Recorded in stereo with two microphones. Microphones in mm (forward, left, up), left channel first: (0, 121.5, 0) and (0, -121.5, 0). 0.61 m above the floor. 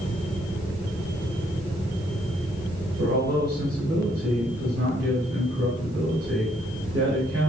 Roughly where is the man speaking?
Right.